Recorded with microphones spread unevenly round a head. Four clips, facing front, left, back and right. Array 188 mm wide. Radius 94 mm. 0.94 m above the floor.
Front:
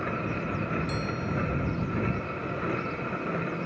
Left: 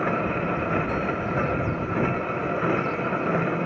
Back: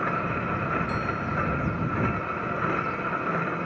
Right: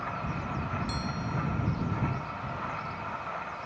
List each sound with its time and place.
0.0 s a machine running: 90° left